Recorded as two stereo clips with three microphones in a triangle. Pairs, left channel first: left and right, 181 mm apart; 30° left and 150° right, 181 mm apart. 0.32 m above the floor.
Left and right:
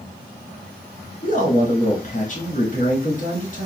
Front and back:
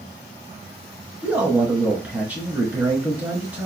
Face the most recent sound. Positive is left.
turn(degrees=130)